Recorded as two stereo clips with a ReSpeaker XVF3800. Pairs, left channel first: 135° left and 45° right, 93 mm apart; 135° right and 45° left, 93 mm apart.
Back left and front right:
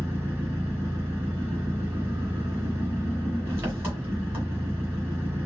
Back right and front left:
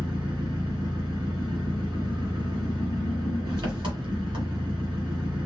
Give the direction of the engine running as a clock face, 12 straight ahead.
11 o'clock.